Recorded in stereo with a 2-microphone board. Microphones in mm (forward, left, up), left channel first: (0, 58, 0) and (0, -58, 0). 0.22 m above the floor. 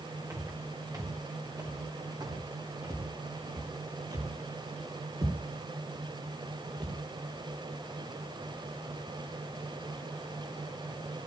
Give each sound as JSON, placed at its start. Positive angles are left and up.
{"t": 0.3, "sound": "footsteps", "side_deg": -25, "distance_m": 4.0}